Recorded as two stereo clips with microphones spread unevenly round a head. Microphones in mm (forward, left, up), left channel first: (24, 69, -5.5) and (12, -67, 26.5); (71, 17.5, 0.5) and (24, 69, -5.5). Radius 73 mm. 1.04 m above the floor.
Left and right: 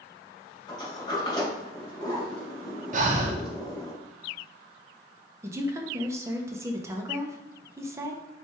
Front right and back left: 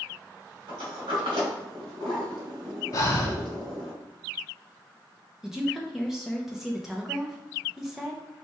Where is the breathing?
80° right, 0.6 m.